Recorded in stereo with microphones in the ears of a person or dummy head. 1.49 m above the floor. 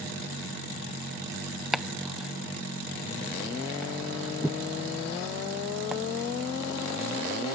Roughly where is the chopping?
Centre.